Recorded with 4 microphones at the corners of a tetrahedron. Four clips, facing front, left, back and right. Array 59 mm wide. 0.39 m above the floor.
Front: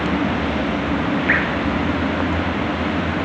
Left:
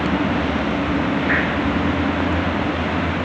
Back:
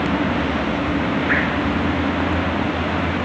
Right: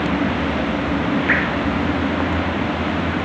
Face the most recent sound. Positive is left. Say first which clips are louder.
# right 2 dB, front 2 dB
turn(degrees=-40)